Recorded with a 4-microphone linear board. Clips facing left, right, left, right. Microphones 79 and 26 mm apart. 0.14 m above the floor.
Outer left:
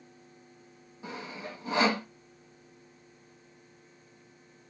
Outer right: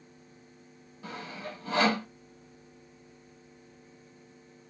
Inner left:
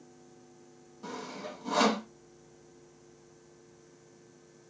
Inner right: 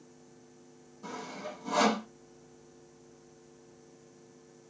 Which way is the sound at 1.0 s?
20° left (ahead or behind).